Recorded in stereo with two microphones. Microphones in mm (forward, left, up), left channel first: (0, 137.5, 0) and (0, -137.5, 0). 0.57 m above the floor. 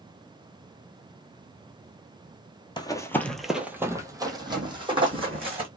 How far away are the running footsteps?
About 0.6 m.